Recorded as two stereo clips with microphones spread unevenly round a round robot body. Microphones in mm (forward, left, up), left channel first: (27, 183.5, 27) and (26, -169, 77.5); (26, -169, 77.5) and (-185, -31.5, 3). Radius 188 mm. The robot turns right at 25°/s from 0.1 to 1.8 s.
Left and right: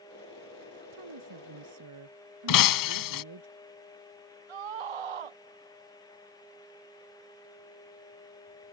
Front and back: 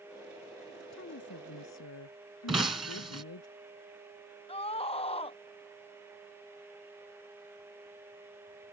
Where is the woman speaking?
75° right; by 3.5 s 55° right.